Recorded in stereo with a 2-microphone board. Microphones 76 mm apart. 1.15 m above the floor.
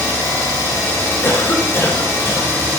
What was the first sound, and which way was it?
An engine running, 35° left (ahead or behind).